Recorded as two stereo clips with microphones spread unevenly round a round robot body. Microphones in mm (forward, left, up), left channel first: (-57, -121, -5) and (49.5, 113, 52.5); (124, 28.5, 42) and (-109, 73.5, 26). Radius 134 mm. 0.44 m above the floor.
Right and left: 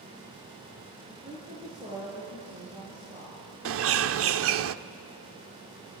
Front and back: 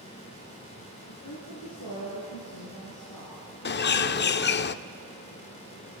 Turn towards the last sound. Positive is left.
turn(degrees=30)